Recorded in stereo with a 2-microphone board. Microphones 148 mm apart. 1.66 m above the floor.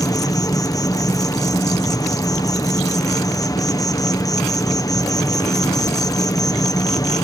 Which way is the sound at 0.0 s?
25° left (ahead or behind).